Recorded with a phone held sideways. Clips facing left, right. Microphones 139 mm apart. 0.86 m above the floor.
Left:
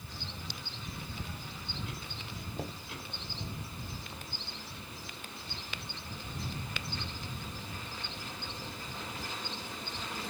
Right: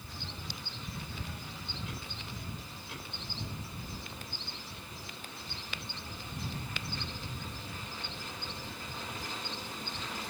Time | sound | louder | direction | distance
2.6 | knocking | left 8 dB | 80° left | ?